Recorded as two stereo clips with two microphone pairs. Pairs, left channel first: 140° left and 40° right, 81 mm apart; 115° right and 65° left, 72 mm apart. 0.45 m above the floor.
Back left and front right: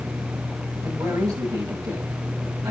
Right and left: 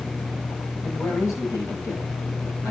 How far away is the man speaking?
About 10 m.